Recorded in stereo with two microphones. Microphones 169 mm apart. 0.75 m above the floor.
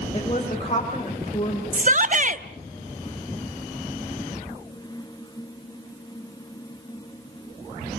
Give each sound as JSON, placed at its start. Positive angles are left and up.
{"t": 0.1, "sound": "a woman speaking", "side_deg": 35, "distance_m": 3.5}
{"t": 1.7, "sound": "a shout", "side_deg": -50, "distance_m": 1.0}